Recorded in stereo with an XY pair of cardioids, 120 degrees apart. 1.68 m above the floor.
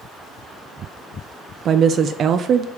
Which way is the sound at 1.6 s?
50° right.